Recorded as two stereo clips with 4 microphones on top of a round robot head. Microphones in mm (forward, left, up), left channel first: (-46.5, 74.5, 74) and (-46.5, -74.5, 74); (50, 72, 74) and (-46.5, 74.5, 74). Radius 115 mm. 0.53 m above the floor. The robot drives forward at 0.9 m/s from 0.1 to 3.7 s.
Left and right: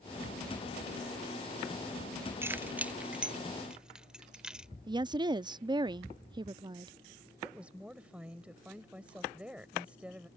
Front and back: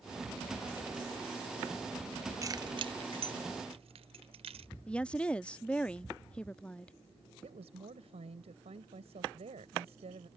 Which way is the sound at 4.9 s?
70° right.